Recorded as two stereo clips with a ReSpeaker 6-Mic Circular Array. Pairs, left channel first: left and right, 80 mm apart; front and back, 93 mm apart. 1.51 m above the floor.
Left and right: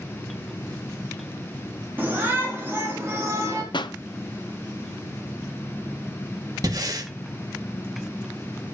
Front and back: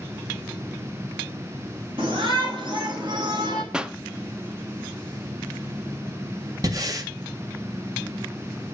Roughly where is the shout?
Behind right.